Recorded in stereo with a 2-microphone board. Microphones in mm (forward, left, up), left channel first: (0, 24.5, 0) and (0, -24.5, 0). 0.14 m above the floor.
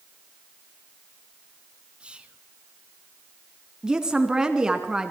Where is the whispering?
20° right (ahead or behind), 1.1 m.